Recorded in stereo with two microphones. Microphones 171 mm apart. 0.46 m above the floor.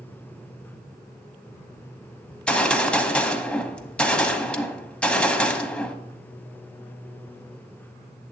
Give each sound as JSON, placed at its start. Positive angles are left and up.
{"t": 2.3, "sound": "a gunshot", "side_deg": 5, "distance_m": 0.8}